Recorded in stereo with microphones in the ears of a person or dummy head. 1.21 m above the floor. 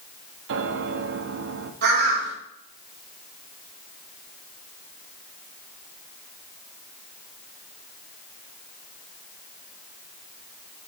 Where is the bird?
55° right (ahead or behind), 4 m.